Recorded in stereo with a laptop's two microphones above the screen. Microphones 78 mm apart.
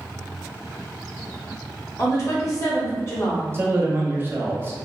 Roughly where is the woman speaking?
Left.